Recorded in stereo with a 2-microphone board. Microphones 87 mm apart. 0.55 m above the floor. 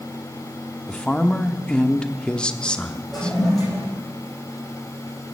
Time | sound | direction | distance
0.9 | a woman speaking | 10° left (ahead or behind) | 0.9 m
3.1 | a toilet flushing | centre (ahead or behind) | 8.5 m